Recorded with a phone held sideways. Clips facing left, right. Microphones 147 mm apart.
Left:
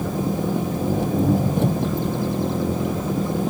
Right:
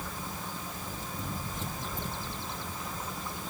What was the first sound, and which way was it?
An engine running, 65° left (ahead or behind).